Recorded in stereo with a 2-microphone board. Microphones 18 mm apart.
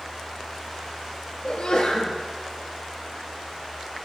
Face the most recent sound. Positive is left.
turn(degrees=75)  # may be behind; listen again after turning